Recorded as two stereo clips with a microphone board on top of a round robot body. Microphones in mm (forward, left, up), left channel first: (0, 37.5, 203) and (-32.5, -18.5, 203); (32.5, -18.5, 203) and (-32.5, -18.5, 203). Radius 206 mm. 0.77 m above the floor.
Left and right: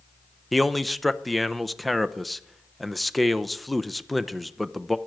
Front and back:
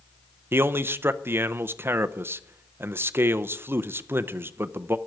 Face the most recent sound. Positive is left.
turn(degrees=150)